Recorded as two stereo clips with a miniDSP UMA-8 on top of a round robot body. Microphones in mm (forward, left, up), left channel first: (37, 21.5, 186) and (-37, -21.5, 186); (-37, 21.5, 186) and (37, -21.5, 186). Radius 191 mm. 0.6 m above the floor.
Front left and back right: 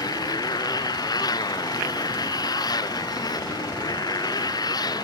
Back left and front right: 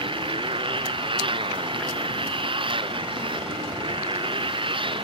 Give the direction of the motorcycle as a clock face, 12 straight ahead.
12 o'clock.